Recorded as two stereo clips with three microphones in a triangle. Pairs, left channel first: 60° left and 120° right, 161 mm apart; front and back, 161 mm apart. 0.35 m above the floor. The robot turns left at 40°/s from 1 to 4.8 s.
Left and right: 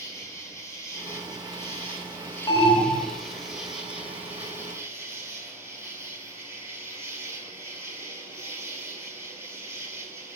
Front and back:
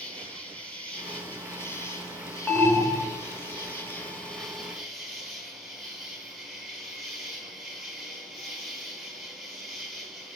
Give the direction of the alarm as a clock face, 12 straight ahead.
10 o'clock.